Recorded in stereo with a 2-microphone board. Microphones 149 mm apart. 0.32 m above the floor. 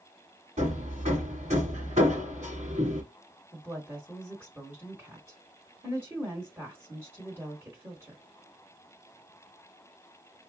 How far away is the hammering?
About 2.5 m.